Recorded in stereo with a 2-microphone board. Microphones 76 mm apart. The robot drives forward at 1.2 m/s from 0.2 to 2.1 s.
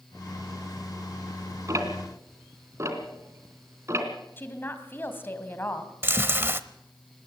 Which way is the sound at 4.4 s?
30° left (ahead or behind).